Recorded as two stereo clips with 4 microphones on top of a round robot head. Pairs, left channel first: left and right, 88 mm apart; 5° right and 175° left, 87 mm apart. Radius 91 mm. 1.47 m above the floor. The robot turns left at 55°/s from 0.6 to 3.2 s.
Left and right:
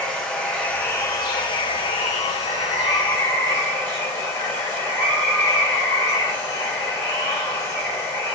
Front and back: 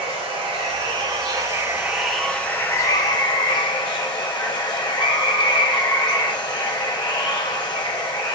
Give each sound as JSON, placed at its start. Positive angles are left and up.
{"t": 0.0, "sound": "running water", "azimuth_deg": 170, "distance_m": 0.9}